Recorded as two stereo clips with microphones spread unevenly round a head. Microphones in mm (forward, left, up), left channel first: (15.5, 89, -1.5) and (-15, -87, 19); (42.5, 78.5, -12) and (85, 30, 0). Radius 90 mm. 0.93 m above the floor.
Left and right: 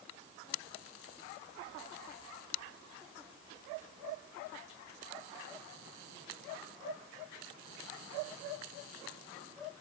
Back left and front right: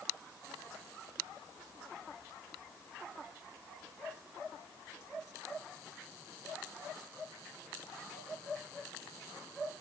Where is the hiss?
I don't hear a hiss.